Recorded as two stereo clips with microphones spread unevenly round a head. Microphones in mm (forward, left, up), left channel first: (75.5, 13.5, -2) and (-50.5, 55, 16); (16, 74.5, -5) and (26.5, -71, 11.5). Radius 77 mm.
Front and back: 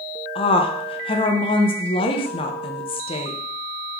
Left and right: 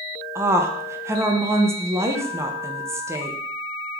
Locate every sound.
0.3 s a woman speaking: 15° right, 0.5 m